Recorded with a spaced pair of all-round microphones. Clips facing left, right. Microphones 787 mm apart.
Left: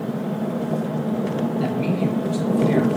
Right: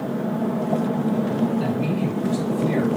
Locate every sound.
1.6 s a man speaking: 15° right (ahead or behind), 4 m; by 2.9 s centre (ahead or behind), 4.5 m